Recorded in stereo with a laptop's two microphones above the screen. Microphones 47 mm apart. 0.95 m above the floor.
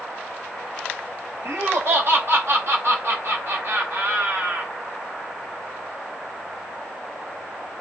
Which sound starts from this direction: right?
Laughter, at 1.4 s.